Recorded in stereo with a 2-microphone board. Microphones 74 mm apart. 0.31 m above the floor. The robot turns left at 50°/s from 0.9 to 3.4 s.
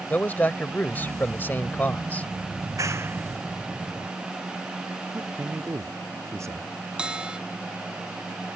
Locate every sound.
0.1 s a man speaking: 25° left (ahead or behind); by 2.3 s 20° left (ahead or behind)
2.6 s a clap: 60° right (ahead or behind); by 4.1 s 15° right (ahead or behind)
5.1 s a man speaking: 40° right (ahead or behind)
7.0 s a bell: 15° right (ahead or behind)